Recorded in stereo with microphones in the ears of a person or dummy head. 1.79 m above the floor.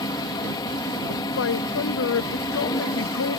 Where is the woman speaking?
70° left (ahead or behind).